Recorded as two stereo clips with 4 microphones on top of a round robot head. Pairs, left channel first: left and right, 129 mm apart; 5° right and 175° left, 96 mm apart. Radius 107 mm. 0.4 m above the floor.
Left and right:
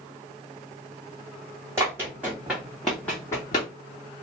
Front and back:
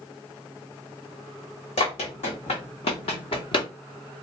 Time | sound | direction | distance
1.8 | running footsteps | 15° right | 1.5 m